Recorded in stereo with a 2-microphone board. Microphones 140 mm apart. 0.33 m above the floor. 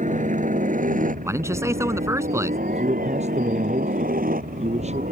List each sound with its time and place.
0.0 s a helicopter: 60° right (ahead or behind); by 5.1 s 80° right
1.2 s a man speaking: 20° right (ahead or behind)
2.7 s a man speaking: 55° right (ahead or behind)